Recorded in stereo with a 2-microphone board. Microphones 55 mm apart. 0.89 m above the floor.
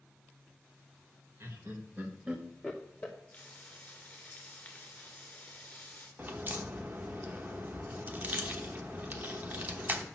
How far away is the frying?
About 2 m.